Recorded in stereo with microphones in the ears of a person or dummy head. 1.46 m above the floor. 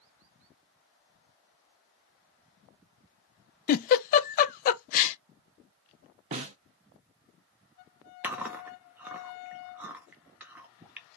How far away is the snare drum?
About 0.6 m.